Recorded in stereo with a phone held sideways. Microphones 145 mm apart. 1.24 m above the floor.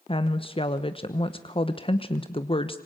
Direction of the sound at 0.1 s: 35° left (ahead or behind).